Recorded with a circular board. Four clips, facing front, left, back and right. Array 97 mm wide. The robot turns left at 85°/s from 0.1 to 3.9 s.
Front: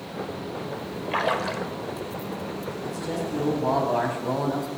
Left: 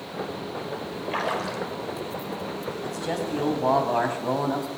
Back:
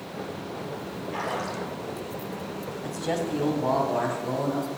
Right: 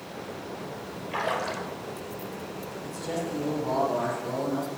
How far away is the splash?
About 1.3 m.